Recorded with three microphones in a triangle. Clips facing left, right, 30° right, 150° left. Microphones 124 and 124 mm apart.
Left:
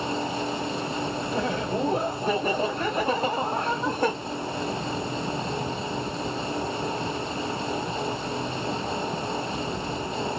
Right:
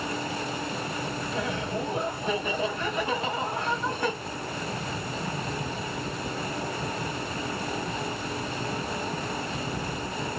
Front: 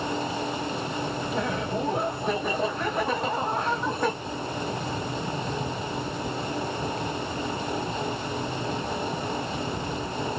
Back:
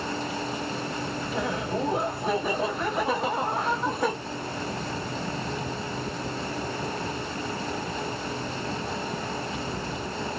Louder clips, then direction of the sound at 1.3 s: Left 4 dB, back 1 dB; 65° left.